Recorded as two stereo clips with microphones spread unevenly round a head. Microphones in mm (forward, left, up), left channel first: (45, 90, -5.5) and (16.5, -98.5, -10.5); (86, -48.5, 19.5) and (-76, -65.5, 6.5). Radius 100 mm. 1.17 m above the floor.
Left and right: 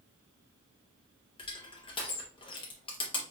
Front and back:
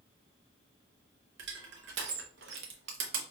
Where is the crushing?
150° left, 0.8 m.